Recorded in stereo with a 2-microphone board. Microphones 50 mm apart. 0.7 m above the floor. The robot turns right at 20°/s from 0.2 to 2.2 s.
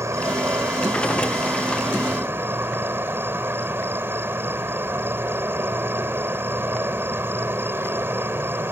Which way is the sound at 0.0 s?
95° right.